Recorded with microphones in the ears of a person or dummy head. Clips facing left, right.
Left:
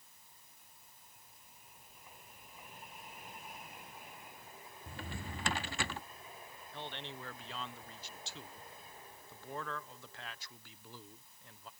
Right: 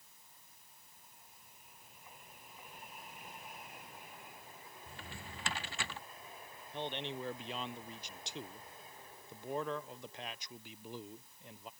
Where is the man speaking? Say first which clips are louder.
Right 6 dB; 15° right (ahead or behind).